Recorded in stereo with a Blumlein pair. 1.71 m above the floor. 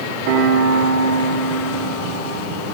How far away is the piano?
About 3 m.